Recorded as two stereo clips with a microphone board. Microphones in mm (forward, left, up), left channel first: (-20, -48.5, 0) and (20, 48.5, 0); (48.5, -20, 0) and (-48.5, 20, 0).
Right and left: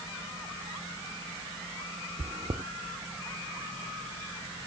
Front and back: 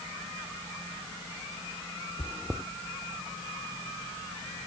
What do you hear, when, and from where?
2.2 s chewing: 70° left, 1.0 m